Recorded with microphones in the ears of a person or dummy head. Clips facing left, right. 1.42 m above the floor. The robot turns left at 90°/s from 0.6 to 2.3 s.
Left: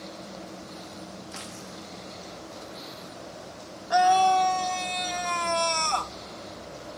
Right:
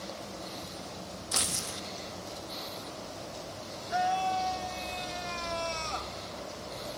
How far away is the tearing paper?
About 1.3 m.